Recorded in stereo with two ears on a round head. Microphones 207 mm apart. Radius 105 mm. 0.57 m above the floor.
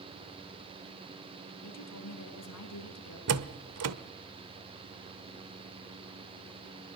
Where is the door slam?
70° right (ahead or behind), 1.3 m.